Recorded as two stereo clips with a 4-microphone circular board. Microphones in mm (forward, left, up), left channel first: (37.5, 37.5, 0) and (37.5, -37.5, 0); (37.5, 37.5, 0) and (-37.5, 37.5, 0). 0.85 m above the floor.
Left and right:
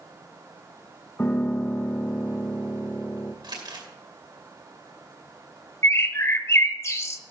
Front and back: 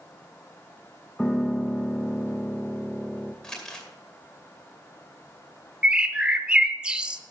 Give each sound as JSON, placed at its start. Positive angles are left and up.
{"t": 1.2, "sound": "a piano", "azimuth_deg": 75, "distance_m": 0.7}
{"t": 3.4, "sound": "crumpling", "azimuth_deg": -80, "distance_m": 2.0}
{"t": 5.8, "sound": "a bird", "azimuth_deg": 110, "distance_m": 0.6}